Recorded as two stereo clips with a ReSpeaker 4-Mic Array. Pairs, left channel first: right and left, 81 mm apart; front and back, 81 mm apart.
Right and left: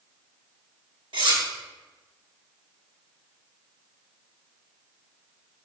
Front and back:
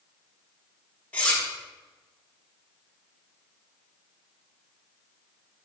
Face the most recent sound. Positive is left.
turn(degrees=75)